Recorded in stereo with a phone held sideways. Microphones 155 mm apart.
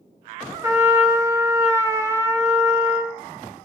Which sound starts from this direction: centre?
A trumpet, at 0.6 s.